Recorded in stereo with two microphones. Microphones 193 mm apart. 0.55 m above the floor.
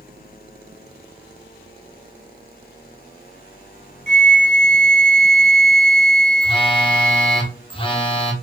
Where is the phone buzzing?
25° left (ahead or behind), 0.9 m.